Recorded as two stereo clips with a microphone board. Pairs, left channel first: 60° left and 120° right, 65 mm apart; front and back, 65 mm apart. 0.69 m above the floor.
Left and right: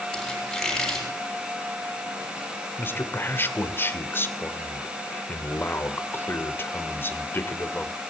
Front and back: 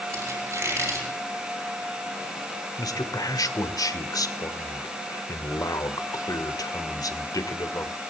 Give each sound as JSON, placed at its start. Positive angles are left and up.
{"t": 0.1, "sound": "a squeak", "azimuth_deg": 145, "distance_m": 7.5}
{"t": 2.8, "sound": "a man speaking", "azimuth_deg": 5, "distance_m": 1.9}